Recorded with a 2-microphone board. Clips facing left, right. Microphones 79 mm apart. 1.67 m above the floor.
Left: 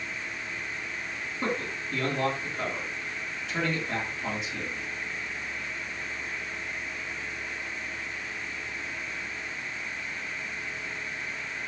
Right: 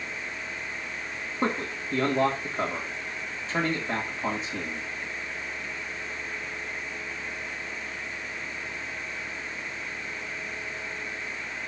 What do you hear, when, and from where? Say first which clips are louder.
1.4 s a man speaking: right 3 dB; 40° right (ahead or behind), 3 m